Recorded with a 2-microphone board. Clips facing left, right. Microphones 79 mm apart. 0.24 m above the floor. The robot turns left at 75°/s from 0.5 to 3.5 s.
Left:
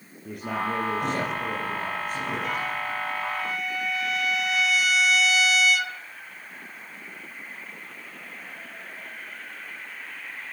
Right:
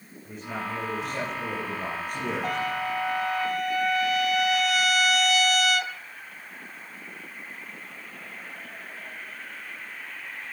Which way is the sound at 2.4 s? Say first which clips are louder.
Right 1 dB; 45° right.